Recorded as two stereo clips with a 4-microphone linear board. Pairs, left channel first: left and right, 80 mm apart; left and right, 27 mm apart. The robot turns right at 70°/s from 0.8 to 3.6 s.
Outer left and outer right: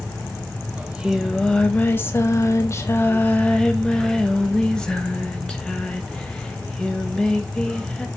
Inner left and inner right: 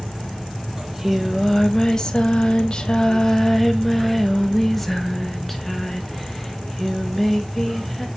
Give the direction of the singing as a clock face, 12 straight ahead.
1 o'clock.